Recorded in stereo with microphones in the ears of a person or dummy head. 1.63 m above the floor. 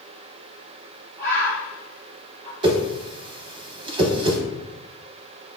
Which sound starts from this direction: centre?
A bird, at 1.2 s.